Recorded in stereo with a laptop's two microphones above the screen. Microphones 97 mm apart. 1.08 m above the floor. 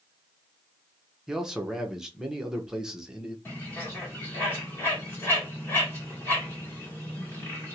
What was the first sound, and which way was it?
A man speaking, 5° right (ahead or behind).